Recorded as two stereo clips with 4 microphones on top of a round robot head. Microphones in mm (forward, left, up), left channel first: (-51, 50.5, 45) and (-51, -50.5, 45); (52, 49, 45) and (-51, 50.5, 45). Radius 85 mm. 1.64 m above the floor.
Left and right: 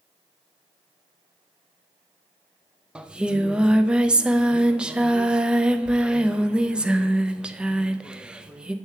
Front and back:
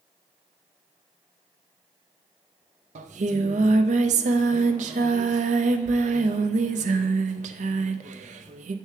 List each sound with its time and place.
3.0 s singing: 170° right, 0.5 m